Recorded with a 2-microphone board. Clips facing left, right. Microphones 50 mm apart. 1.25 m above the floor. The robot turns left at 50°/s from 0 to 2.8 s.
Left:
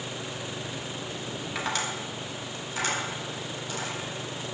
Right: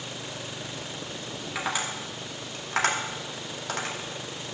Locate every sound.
1.6 s tapping: centre (ahead or behind), 2.5 m; by 4.0 s 65° right (ahead or behind), 2.5 m